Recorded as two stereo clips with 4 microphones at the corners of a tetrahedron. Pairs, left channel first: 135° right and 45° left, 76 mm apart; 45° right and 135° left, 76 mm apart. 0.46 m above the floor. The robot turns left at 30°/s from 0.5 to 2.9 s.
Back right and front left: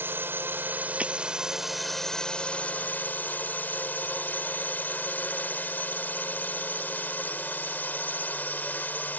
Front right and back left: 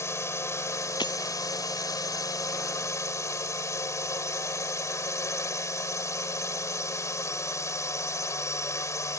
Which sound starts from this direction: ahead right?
Breaking glass, at 1.0 s.